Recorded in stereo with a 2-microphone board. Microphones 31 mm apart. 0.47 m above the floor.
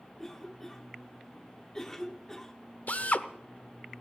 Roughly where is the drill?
Left.